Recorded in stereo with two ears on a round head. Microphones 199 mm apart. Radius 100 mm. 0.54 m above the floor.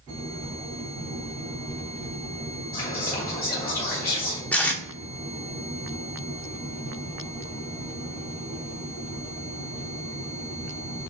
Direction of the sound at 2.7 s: 40° left (ahead or behind).